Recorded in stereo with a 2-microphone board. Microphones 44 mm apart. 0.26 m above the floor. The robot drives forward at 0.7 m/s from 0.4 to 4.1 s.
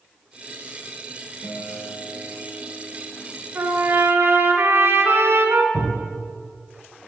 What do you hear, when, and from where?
1.4 s a guitar: 70° left (ahead or behind), 3.5 m; by 3.5 s 65° left (ahead or behind), 4 m
3.5 s a trumpet: 65° right (ahead or behind), 1.5 m; by 5.6 s 60° right (ahead or behind), 1.6 m
5.7 s a thud: 85° left, 4 m